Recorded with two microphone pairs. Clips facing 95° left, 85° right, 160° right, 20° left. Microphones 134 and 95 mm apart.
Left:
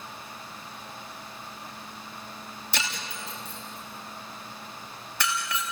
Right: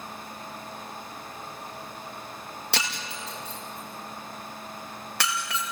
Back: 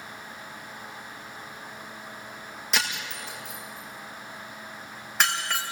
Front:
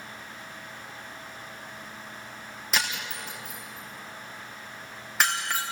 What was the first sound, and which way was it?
Breaking glass, 70° right.